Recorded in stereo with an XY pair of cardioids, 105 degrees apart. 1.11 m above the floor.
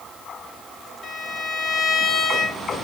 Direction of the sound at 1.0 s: 40° left.